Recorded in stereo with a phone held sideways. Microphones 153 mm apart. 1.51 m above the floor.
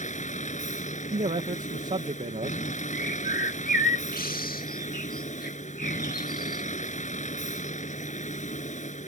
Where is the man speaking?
55° right (ahead or behind).